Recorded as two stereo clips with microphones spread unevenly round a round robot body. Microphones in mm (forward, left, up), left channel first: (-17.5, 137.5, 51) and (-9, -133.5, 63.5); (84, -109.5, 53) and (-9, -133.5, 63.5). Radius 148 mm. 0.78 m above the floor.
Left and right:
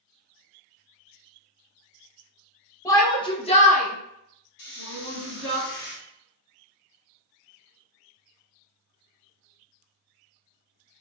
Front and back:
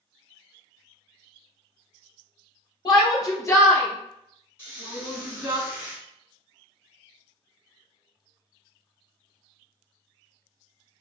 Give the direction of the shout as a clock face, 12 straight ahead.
11 o'clock.